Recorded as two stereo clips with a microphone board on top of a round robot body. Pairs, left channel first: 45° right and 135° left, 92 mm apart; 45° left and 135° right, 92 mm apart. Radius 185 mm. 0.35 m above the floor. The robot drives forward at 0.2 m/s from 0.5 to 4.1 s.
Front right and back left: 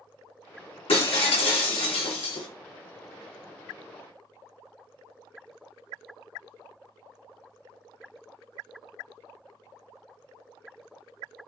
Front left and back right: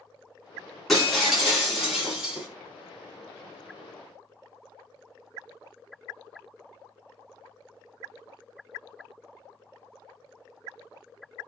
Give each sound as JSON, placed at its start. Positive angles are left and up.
{"t": 0.9, "sound": "breaking glass", "azimuth_deg": -45, "distance_m": 1.7}